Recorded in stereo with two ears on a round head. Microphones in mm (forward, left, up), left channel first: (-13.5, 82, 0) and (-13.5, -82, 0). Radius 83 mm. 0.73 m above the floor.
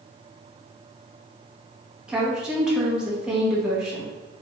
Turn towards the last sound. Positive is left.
turn(degrees=-5)  # may be behind; listen again after turning